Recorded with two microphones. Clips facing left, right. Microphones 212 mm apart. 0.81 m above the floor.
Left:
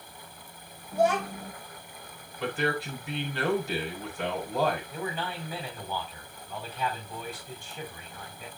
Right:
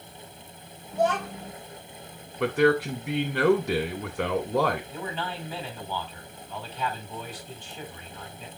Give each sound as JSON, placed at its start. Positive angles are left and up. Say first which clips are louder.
{"t": 0.9, "sound": "a child speaking", "louder": "left 1 dB", "side_deg": 10, "distance_m": 1.1}
{"t": 2.4, "sound": "a man speaking", "louder": "right 9 dB", "side_deg": -70, "distance_m": 3.0}
{"t": 4.9, "sound": "a man speaking", "louder": "even", "side_deg": 10, "distance_m": 5.5}